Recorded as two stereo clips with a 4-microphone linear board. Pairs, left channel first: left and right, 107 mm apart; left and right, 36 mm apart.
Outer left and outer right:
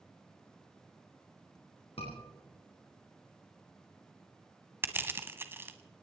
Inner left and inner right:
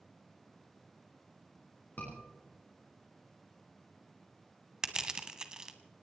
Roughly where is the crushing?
Right.